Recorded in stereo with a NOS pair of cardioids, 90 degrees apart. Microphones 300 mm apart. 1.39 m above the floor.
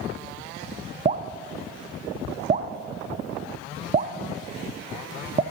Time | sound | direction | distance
1.1 | dripping | 25° right | 0.5 m